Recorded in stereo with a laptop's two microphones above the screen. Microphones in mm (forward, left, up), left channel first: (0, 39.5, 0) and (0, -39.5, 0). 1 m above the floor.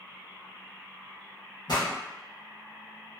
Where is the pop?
70° left (ahead or behind), 1.0 m.